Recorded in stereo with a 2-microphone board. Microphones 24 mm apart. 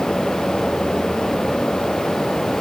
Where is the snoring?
I don't hear snoring.